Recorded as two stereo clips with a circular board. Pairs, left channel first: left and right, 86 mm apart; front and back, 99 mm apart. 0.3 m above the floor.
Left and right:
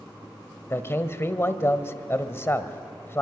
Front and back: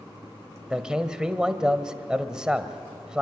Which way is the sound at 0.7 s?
105° left.